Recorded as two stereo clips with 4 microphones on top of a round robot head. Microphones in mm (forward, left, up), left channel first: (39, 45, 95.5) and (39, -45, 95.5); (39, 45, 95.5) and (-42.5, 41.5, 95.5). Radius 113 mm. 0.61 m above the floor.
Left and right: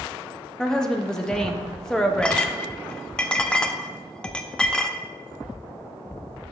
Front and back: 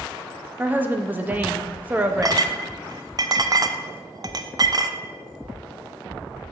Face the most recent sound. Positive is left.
turn(degrees=165)